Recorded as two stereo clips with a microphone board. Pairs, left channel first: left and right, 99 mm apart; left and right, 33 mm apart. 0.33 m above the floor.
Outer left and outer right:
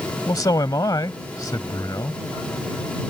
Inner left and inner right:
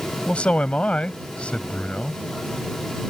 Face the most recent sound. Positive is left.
turn(degrees=40)  # may be behind; listen again after turning